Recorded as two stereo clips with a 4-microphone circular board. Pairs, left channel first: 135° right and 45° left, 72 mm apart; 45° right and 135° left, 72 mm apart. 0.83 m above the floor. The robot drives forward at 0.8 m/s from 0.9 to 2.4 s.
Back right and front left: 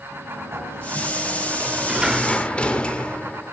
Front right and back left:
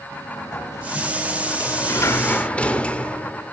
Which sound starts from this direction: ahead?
A sliding door, at 0.1 s.